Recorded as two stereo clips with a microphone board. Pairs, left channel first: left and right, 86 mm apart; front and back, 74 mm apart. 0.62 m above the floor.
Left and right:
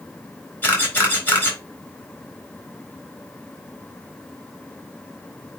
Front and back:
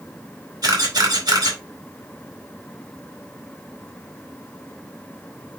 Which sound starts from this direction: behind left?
A camera shutter, at 0.6 s.